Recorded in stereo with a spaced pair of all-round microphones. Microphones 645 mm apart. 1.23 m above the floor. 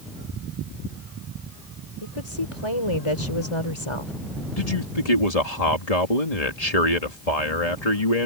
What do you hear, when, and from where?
2.0 s a woman speaking: 50° left (ahead or behind)
4.6 s a man speaking: 70° left (ahead or behind)